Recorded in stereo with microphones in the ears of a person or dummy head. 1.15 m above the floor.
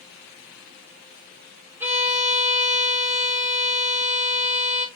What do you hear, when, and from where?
1.8 s a violin: 15° right (ahead or behind), 5 m